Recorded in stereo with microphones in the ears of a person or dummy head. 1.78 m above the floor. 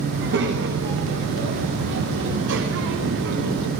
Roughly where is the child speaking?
Right.